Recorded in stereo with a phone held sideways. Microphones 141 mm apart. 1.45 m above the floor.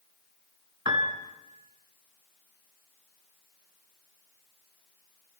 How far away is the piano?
About 2.5 m.